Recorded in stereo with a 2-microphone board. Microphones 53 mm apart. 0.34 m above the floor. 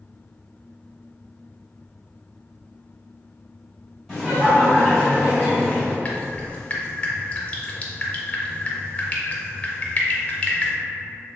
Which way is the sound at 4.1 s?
Centre (ahead or behind).